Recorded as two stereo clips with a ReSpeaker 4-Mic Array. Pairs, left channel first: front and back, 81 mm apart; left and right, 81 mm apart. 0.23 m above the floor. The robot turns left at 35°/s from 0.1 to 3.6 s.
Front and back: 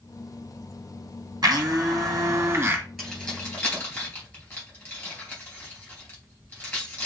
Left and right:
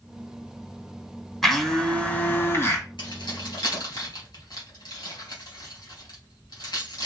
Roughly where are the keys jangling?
Left.